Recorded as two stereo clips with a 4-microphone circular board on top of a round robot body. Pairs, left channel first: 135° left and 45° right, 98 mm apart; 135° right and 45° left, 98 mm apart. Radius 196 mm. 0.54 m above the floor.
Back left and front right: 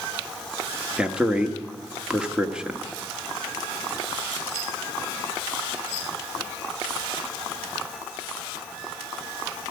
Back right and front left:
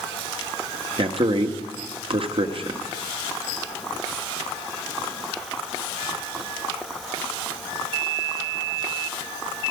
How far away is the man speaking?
About 1.6 m.